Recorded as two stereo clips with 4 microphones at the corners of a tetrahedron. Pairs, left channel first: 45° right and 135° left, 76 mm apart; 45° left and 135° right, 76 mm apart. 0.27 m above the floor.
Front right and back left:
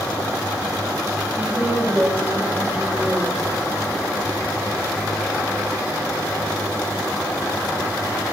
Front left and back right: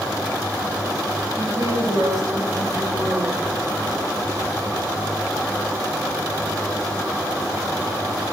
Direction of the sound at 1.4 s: 170° right.